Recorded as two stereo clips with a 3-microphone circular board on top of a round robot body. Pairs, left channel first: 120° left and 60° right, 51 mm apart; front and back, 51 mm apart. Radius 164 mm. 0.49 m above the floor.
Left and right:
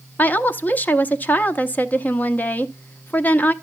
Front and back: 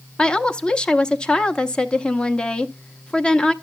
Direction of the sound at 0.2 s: 70° left.